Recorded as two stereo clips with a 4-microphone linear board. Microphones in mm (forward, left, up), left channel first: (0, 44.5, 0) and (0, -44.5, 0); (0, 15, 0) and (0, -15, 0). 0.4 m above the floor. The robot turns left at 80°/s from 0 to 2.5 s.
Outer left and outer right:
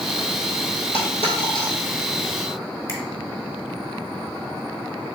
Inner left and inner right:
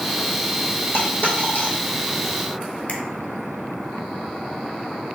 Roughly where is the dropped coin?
Left.